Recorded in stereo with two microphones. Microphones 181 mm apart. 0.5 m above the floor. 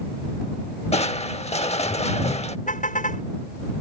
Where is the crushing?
35° left (ahead or behind).